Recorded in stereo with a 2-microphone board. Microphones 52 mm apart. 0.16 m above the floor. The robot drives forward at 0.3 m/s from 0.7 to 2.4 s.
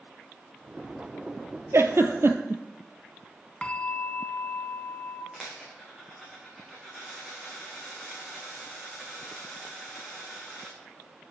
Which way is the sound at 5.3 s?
5° right (ahead or behind).